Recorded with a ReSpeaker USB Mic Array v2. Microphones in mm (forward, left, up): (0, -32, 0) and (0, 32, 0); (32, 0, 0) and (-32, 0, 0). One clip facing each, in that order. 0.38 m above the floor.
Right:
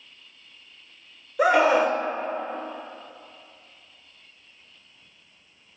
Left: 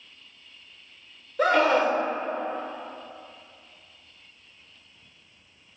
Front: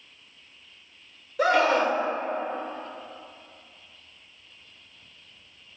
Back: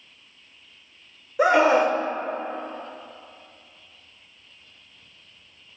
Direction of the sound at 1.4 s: 150° right.